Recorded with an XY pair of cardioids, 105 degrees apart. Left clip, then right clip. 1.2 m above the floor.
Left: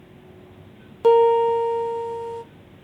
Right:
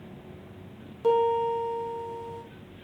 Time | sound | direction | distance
1.0 | a piano | 60° left | 0.9 m